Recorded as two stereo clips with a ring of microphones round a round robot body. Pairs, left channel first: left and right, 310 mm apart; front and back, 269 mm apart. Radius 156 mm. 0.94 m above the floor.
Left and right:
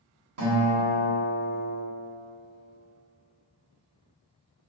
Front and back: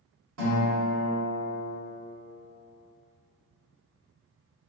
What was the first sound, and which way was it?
A guitar, 130° right.